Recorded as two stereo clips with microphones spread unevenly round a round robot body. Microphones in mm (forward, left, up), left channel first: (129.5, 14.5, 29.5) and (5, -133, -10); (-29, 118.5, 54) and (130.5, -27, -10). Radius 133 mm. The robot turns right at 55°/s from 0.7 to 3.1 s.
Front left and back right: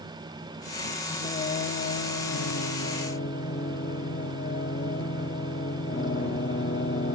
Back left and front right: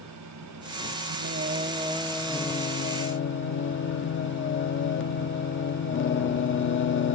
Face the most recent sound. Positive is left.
turn(degrees=105)